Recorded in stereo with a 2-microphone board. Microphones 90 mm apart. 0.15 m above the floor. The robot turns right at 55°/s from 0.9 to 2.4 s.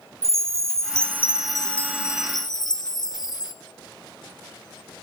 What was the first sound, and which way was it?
A chime, 35° right.